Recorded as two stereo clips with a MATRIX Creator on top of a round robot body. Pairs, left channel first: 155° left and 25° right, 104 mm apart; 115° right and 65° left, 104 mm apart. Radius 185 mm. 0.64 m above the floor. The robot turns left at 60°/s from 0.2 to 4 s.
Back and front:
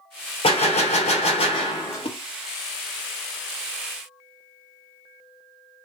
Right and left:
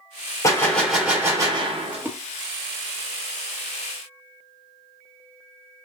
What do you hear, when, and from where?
0.4 s a gunshot: 175° right, 1.0 m; by 2.0 s 90° left, 1.0 m
1.9 s a splash: 145° left, 0.9 m; by 2.2 s 130° left, 0.9 m